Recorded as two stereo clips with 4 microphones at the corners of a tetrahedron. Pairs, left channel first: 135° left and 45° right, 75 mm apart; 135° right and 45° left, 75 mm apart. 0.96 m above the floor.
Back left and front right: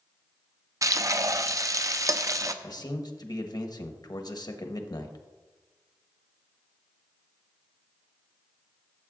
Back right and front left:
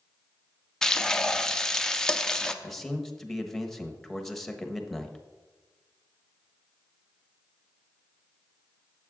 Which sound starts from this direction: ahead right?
Frying, at 0.8 s.